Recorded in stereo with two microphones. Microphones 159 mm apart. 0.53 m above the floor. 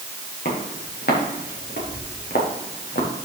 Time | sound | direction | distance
0.5 | footsteps | 80° left | 6.5 m